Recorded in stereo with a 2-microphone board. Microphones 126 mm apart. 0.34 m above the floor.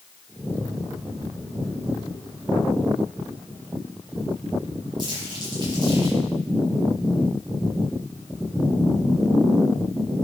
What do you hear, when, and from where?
5.0 s crumpling: 35° right (ahead or behind), 7 m